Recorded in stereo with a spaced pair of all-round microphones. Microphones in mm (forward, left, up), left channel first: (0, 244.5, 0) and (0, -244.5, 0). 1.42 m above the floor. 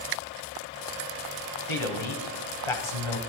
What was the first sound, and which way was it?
A man speaking, 65° left (ahead or behind).